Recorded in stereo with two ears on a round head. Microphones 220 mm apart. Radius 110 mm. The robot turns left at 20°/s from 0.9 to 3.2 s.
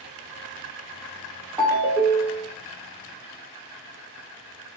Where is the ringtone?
5° right (ahead or behind), 0.8 m; by 2.5 s 20° right (ahead or behind), 0.8 m.